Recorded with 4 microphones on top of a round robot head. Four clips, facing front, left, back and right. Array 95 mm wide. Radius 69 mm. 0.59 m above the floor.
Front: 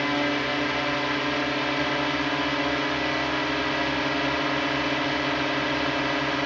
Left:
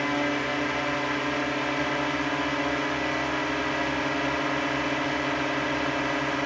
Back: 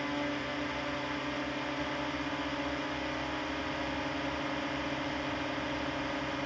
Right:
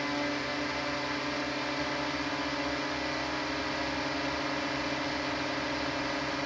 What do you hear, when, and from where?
0.0 s a drone: 30° left